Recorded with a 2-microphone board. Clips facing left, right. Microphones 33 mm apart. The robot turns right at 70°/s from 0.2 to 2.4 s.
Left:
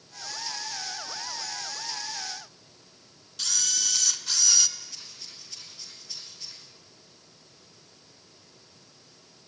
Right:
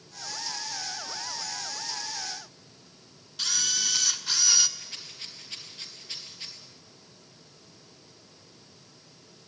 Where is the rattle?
45° right (ahead or behind), 3.5 m.